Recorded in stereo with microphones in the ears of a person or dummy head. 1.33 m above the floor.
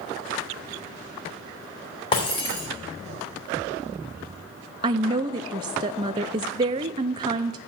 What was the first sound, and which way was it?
Breaking glass, 30° left (ahead or behind).